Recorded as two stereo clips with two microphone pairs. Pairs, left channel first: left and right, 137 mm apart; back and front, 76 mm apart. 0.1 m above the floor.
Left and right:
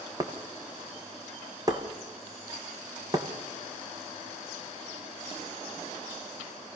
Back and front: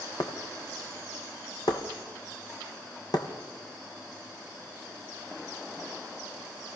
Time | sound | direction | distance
0.2 | breaking glass | 150° right | 3 m